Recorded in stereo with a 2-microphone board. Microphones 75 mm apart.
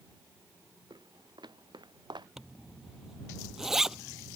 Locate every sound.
0.9 s footsteps: 80° right; by 2.3 s 85° right
2.4 s a zipper: 5° right (ahead or behind)